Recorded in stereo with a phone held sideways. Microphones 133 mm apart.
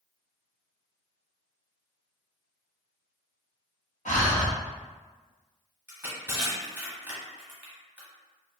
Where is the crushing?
15° right (ahead or behind), 1.7 m.